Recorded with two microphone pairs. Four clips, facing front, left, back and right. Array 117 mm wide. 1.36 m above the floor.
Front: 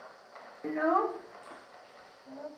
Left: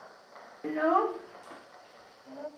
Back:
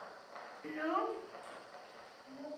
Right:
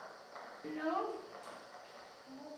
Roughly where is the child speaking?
Ahead left.